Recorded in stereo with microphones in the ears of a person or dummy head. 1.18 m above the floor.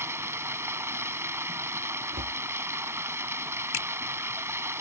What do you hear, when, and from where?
0.0 s running water: 15° right (ahead or behind)
2.1 s a cupboard door: 45° right (ahead or behind)
3.7 s a finger snap: 70° left (ahead or behind)